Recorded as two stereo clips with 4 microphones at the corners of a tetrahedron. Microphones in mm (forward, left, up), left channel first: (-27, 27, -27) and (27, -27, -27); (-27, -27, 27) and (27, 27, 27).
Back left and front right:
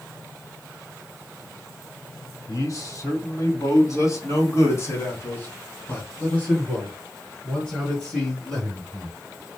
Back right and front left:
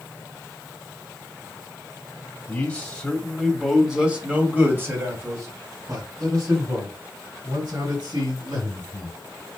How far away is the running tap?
I don't hear a running tap.